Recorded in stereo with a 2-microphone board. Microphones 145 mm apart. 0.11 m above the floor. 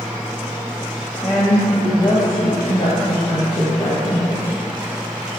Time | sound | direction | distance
1.2 | a woman speaking | centre (ahead or behind) | 5.5 m